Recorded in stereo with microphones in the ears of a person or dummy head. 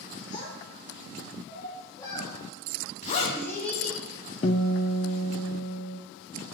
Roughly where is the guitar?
Left.